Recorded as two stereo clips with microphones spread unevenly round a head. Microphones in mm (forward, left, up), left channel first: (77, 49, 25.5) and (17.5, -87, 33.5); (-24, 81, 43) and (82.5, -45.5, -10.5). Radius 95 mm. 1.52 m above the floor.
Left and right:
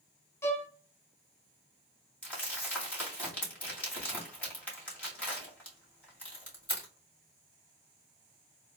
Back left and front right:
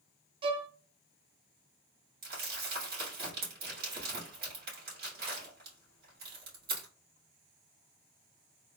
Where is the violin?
10° left, 0.6 m.